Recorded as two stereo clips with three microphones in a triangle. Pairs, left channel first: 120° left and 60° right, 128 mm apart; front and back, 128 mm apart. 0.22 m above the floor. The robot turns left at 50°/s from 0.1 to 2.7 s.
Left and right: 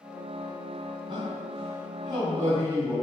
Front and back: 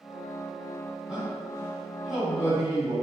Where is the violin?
I don't hear a violin.